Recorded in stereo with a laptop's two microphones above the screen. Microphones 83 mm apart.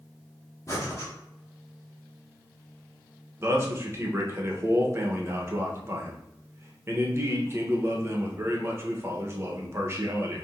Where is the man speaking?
30° right (ahead or behind), 1.0 m.